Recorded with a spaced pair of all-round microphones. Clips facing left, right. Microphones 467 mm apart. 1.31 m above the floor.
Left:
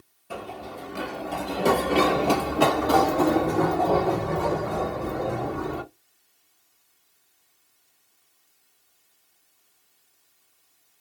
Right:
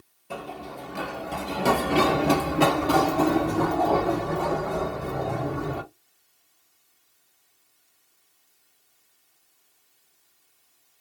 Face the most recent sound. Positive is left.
turn(degrees=-65)  # may be behind; listen again after turning